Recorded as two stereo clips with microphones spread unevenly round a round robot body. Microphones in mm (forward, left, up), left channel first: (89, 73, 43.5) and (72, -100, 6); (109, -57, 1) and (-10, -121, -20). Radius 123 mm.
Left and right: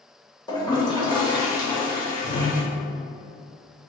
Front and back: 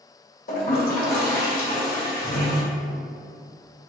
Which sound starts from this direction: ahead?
A toilet flushing, at 0.5 s.